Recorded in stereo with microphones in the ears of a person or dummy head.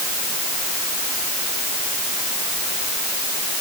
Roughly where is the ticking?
I don't hear ticking.